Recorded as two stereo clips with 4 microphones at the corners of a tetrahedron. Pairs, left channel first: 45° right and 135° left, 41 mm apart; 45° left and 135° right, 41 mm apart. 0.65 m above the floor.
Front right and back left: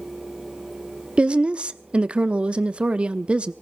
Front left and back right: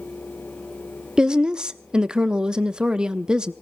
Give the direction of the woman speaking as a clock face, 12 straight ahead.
6 o'clock.